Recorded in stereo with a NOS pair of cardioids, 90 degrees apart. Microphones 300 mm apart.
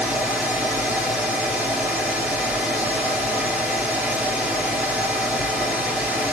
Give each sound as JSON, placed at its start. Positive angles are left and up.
{"t": 0.0, "sound": "a fan", "azimuth_deg": -5, "distance_m": 1.6}